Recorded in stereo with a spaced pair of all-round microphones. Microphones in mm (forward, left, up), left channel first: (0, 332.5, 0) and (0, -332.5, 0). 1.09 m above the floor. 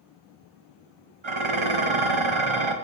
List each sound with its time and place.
1.2 s dishes clattering: 45° right (ahead or behind), 0.8 m